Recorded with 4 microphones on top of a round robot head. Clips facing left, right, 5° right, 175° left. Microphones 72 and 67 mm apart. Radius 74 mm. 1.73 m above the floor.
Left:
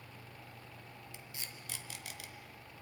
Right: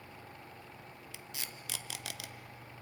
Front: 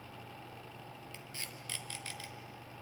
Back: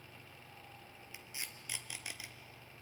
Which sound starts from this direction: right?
Tape being pulled, at 1.1 s.